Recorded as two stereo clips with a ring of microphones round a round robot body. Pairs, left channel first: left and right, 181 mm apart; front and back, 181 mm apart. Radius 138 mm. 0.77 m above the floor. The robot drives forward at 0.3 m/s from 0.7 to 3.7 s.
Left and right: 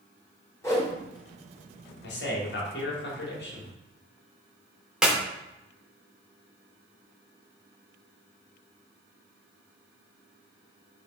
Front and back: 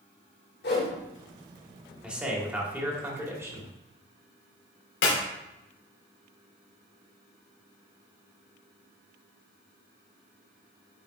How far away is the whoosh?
About 3.5 m.